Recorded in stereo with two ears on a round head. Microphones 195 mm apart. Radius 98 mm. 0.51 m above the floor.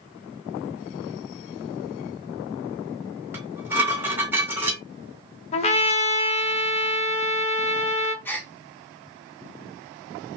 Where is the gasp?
10° left (ahead or behind), 0.7 m.